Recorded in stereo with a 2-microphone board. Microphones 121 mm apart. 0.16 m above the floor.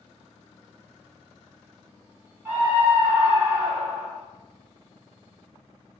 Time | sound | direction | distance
2.5 | a scream | 20° right (ahead or behind) | 1.3 m